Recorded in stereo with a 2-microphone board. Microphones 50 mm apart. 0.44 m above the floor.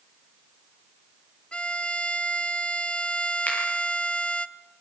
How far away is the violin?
About 0.8 m.